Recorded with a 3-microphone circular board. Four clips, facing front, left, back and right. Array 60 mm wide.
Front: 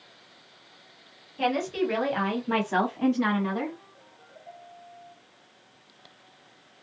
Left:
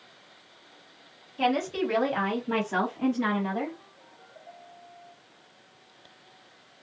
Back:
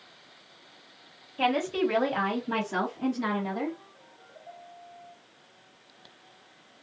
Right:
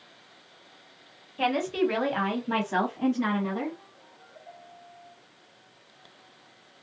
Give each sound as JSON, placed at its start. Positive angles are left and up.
{"t": 1.4, "sound": "a woman speaking", "azimuth_deg": -145, "distance_m": 1.2}